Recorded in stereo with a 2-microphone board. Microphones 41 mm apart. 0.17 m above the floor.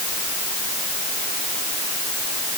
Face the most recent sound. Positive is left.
No sound to turn to.